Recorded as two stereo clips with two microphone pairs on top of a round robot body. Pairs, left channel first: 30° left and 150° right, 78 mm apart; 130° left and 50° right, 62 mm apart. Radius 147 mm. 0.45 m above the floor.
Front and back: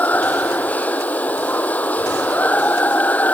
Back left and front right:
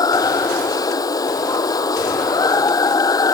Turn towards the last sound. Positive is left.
turn(degrees=100)